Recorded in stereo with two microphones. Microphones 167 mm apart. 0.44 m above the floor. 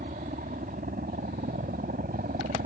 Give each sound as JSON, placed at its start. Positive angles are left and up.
{"t": 0.0, "sound": "a helicopter", "side_deg": -55}